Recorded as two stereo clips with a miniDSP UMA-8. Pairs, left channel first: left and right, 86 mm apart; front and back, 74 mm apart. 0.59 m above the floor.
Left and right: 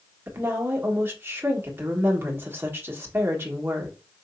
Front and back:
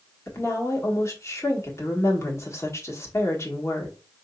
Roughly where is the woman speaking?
Ahead right.